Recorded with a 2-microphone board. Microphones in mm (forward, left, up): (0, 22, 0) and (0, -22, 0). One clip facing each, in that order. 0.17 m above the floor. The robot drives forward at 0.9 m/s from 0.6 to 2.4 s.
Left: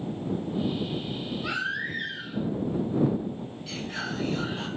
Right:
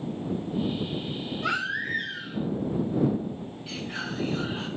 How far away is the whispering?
About 1.8 m.